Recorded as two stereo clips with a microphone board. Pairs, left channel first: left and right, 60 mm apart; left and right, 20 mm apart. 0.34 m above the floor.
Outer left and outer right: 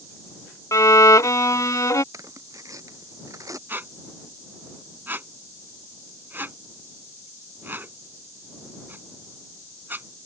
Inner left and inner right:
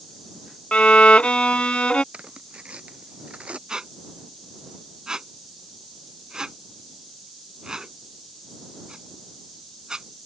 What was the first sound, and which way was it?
A violin, 70° left (ahead or behind).